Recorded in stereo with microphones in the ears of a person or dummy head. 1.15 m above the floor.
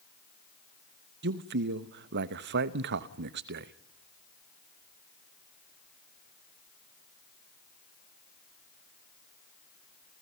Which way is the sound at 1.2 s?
60° right (ahead or behind).